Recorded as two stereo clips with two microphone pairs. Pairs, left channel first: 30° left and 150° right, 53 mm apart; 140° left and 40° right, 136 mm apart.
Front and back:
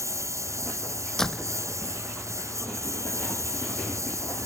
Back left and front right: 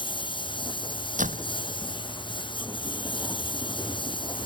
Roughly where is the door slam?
Ahead right.